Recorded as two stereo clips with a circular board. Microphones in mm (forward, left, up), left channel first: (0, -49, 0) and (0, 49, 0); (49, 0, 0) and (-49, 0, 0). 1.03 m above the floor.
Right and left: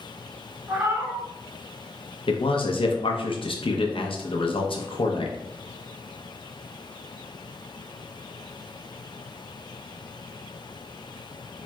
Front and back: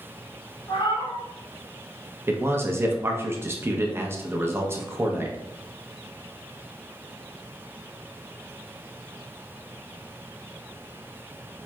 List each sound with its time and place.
0.7 s a cat meowing: 35° left, 1.6 m
2.3 s a man speaking: 115° right, 0.6 m